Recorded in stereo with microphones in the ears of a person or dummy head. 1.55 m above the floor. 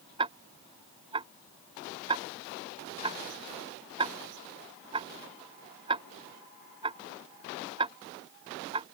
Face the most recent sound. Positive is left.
turn(degrees=-30)  # may be behind; listen again after turning